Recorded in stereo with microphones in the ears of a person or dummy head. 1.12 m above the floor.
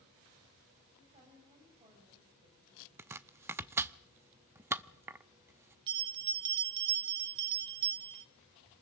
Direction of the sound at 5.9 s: 25° right (ahead or behind).